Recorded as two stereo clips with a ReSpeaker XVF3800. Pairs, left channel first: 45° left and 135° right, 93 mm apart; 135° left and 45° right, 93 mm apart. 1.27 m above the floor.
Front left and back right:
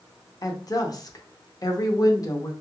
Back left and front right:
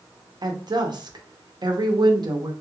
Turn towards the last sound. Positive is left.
turn(degrees=-5)